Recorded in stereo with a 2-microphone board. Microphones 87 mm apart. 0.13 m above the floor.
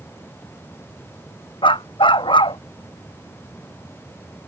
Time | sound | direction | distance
1.6 | a dog barking | 70° left (ahead or behind) | ?